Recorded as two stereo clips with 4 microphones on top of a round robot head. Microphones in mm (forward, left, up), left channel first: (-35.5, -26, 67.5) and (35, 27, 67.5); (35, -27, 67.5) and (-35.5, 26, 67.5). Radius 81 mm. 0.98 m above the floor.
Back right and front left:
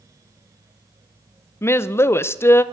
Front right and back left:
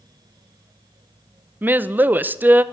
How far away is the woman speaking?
About 0.7 m.